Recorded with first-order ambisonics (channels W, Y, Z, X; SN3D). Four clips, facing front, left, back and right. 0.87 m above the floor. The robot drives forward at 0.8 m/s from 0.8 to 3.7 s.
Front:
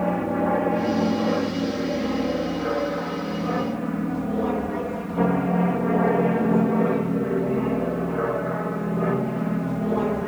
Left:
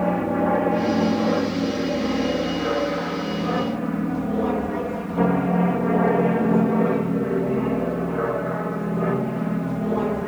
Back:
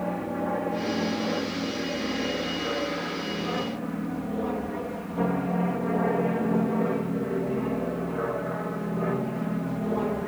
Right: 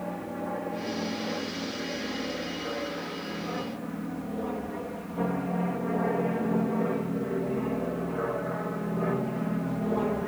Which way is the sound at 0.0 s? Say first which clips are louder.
Left 13 dB, front 6 dB; 65° left.